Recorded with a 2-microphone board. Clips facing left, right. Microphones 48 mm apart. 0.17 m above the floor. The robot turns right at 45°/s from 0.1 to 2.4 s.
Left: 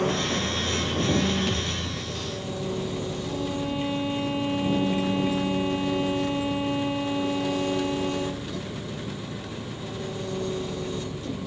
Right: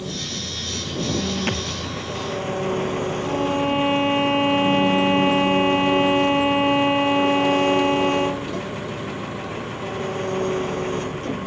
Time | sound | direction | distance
0.0 | an engine running | 130° left | ?
1.5 | a thud | 50° right (ahead or behind) | ?
3.2 | a violin | 65° right (ahead or behind) | ?